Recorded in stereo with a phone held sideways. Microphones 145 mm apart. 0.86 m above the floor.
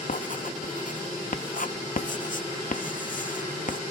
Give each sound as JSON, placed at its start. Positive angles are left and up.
{"t": 0.1, "sound": "writing", "side_deg": 65}